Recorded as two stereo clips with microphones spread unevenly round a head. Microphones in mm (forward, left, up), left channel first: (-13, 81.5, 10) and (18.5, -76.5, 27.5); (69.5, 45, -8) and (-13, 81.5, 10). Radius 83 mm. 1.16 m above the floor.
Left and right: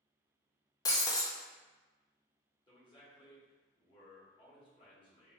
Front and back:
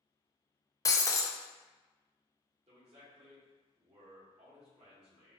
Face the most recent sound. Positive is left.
turn(degrees=160)